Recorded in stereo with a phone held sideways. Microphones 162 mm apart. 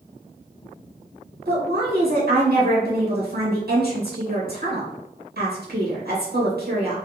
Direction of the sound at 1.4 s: 70° right (ahead or behind).